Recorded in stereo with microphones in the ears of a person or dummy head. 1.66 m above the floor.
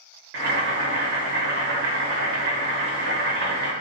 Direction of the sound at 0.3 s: 60° right (ahead or behind).